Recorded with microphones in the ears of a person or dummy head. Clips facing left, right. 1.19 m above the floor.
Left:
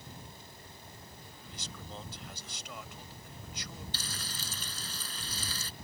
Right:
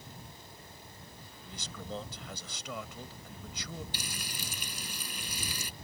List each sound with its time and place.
1.5 s a man speaking: 85° right
3.9 s frying: 15° right (ahead or behind)